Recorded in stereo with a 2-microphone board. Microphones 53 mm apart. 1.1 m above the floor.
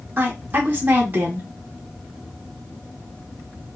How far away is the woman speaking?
About 0.7 m.